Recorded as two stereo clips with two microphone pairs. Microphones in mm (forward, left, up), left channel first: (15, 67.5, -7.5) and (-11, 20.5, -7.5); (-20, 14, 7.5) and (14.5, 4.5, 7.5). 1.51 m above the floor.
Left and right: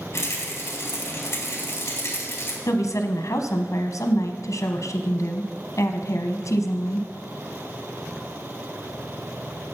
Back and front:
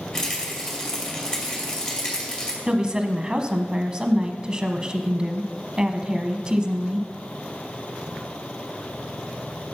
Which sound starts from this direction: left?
A rattle, at 0.1 s.